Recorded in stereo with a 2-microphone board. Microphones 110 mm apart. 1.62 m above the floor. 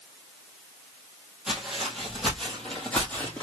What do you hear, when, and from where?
1.5 s footsteps: 5° right (ahead or behind), 2.5 m; by 3.4 s 15° left (ahead or behind), 3 m